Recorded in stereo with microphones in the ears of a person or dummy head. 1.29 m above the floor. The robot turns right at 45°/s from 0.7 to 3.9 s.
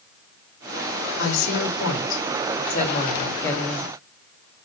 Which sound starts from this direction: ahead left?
A woman speaking, at 1.2 s.